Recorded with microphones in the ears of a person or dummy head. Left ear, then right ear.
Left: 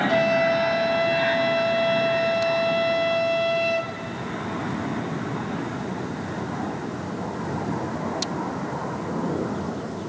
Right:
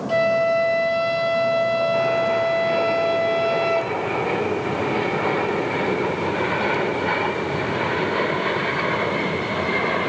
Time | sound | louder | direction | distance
0.1 | a flute | right 5 dB | 5° right (ahead or behind) | 0.6 m